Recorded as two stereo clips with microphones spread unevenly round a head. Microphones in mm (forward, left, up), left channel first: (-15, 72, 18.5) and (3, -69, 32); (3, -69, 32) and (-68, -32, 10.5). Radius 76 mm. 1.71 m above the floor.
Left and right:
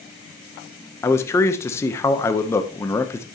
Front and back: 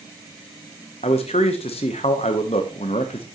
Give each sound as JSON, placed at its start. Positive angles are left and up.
{"t": 1.0, "sound": "a man speaking", "azimuth_deg": 20, "distance_m": 0.9}